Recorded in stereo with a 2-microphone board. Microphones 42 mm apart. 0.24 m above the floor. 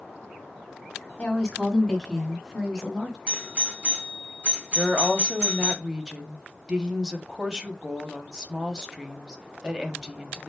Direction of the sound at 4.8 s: 15° right (ahead or behind).